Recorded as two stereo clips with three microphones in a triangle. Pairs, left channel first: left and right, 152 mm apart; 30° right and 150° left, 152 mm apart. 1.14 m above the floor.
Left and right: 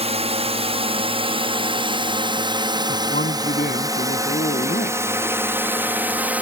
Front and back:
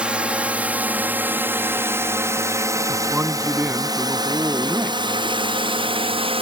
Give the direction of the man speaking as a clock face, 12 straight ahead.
10 o'clock.